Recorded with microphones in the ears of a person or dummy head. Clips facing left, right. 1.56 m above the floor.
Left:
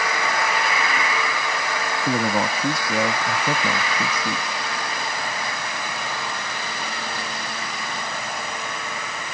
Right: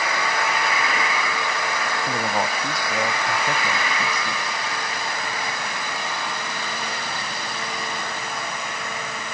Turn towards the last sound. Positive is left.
turn(degrees=75)  # may be behind; listen again after turning